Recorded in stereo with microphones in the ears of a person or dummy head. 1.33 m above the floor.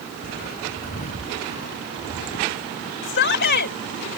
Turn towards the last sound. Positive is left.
turn(degrees=55)  # may be behind; listen again after turning